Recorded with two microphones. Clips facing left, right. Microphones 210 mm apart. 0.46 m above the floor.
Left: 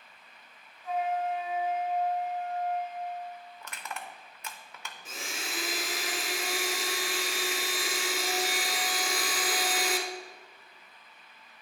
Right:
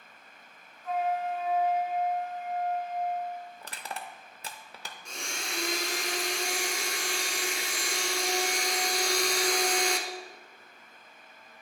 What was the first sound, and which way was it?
A flute, 15° left (ahead or behind).